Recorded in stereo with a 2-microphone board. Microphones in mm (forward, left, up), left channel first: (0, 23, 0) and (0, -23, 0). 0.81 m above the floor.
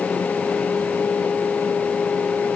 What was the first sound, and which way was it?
Only background noise.